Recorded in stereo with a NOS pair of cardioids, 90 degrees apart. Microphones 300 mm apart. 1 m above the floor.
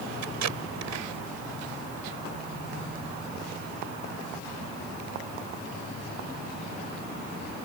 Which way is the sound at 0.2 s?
65° right.